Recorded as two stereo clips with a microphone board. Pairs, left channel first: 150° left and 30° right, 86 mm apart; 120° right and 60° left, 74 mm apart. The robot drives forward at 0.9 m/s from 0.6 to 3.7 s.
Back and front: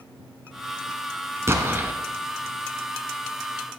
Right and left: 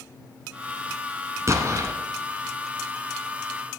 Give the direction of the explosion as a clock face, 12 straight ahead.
11 o'clock.